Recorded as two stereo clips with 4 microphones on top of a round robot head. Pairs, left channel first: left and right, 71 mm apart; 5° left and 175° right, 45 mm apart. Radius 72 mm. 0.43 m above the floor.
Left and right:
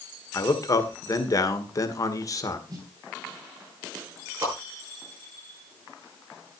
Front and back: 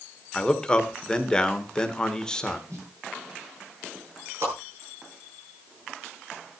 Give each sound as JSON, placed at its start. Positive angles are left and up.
{"t": 0.3, "sound": "a man speaking", "azimuth_deg": 75, "distance_m": 1.8}
{"t": 2.7, "sound": "a snare drum", "azimuth_deg": -140, "distance_m": 8.5}
{"t": 4.4, "sound": "a whoosh", "azimuth_deg": -150, "distance_m": 8.5}